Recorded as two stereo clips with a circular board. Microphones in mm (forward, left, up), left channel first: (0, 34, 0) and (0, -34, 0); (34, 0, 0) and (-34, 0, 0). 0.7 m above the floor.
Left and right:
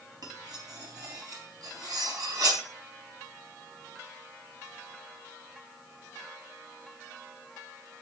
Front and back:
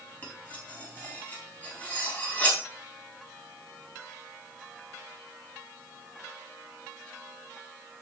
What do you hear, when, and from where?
0.2 s cutlery clinking: 65° right, 3.5 m